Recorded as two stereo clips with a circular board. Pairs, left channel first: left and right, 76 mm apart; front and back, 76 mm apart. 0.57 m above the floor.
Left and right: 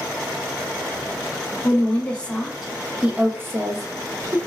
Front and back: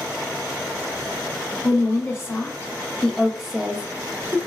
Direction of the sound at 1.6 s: 35° left.